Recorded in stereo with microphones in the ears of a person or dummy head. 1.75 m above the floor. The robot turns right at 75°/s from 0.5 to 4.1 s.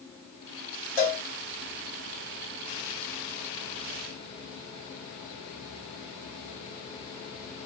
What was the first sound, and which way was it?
A cowbell, 15° left (ahead or behind).